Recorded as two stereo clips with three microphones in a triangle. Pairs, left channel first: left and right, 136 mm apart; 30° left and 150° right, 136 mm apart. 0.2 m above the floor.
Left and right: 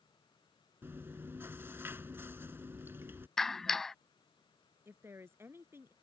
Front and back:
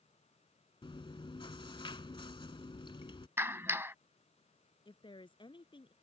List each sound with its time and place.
0.8 s chewing: 20° right
3.4 s a clap: 175° left
4.8 s a woman speaking: 20° right